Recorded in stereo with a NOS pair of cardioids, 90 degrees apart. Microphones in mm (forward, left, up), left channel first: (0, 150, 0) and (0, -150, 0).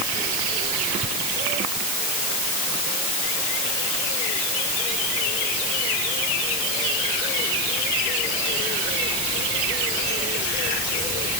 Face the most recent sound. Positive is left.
No sound to turn to.